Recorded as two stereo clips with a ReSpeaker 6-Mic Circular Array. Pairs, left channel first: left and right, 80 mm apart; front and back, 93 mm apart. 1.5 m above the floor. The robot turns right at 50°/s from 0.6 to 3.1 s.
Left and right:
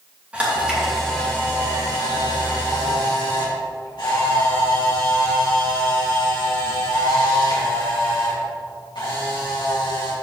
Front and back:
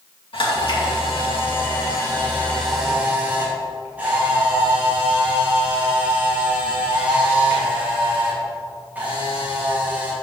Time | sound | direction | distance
0.3 | a camera shutter | 15° right | 3 m